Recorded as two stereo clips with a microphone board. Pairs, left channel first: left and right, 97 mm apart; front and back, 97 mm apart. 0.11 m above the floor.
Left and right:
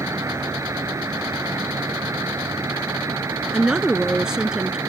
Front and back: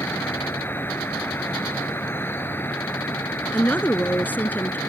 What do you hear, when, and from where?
0.0 s an insect: 55° right
3.5 s a woman speaking: 20° right